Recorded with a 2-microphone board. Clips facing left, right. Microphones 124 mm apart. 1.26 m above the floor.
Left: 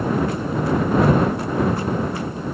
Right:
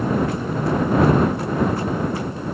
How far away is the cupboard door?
I don't hear a cupboard door.